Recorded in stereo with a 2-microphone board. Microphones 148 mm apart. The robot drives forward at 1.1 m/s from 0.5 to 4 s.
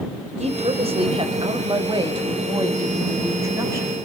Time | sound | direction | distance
0.4 | a woman speaking | 50° right (ahead or behind) | 2.5 m